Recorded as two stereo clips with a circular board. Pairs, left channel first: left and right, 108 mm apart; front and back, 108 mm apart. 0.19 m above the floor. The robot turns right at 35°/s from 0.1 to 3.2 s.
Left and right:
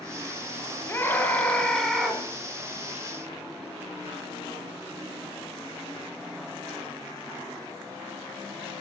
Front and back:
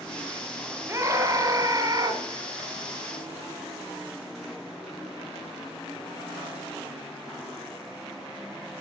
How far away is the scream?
About 2 m.